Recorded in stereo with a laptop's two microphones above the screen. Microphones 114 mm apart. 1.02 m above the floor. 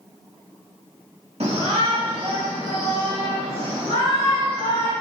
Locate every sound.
1.4 s a shout: 60° right (ahead or behind), 1.7 m; by 4.9 s 90° right, 6.5 m